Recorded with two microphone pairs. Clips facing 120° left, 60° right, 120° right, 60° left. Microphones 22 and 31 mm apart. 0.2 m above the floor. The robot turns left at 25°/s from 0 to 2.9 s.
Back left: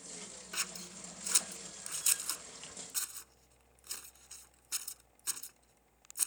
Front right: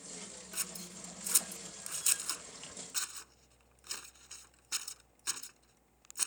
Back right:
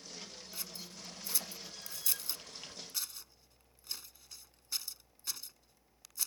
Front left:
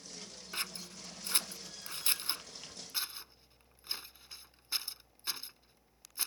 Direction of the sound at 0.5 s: 70° left.